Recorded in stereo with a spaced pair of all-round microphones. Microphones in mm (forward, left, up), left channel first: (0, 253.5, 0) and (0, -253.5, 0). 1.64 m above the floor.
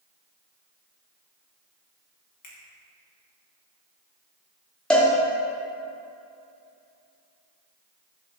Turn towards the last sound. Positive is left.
turn(degrees=0)  # may be behind; listen again after turning